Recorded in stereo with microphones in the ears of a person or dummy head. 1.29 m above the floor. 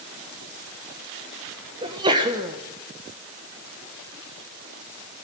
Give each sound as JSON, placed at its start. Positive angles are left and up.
{"t": 1.8, "sound": "a sneeze", "side_deg": -25, "distance_m": 1.4}